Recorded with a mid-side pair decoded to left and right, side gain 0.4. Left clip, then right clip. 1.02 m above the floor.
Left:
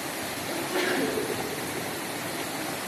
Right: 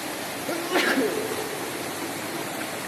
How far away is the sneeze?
About 1.9 m.